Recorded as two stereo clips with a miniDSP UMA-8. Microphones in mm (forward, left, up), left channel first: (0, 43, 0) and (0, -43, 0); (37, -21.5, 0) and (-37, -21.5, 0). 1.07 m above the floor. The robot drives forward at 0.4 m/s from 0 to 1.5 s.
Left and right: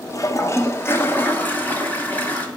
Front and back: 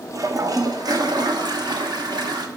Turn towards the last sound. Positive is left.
turn(degrees=160)